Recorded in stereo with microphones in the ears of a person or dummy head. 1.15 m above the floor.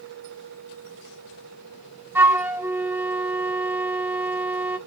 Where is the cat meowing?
I don't hear a cat meowing.